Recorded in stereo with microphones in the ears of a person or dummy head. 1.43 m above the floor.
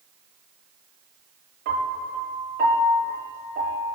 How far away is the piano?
About 8 m.